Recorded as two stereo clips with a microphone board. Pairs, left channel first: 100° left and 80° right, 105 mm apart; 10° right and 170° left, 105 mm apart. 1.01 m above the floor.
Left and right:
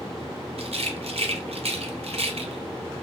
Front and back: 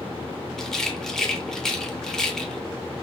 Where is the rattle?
95° right, 0.6 m.